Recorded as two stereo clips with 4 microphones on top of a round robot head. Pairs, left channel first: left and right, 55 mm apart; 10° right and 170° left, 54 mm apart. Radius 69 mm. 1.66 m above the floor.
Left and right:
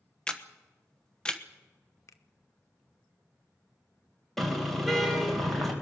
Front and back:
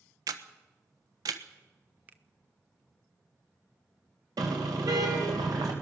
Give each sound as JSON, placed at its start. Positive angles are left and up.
{"t": 0.3, "sound": "a camera shutter", "azimuth_deg": 165, "distance_m": 1.1}
{"t": 2.1, "sound": "a finger snap", "azimuth_deg": 115, "distance_m": 0.6}
{"t": 4.4, "sound": "a car horn", "azimuth_deg": 175, "distance_m": 3.5}